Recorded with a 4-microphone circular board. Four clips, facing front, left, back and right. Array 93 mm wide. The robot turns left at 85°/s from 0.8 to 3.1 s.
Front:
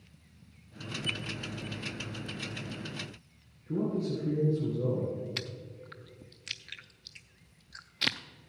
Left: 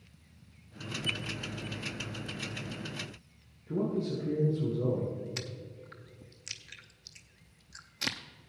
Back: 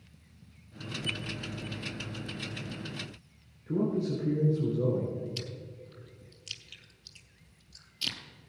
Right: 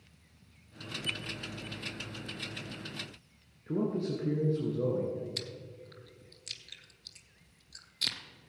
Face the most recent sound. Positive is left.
turn(degrees=20)